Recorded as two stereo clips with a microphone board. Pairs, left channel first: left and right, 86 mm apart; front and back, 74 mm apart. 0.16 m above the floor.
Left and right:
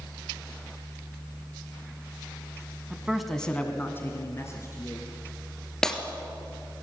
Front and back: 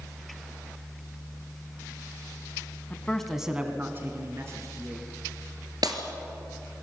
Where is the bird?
No bird in this recording.